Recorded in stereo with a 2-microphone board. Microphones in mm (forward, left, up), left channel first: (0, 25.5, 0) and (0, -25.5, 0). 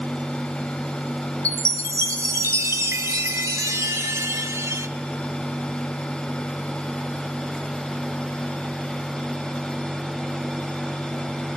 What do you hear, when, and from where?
1.4 s a chime: 80° right, 0.7 m